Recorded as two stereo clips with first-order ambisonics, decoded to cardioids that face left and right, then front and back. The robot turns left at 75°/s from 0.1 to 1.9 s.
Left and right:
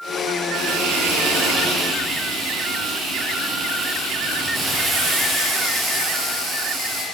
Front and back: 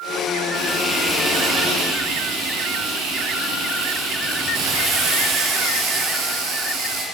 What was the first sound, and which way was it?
Frying, 45° right.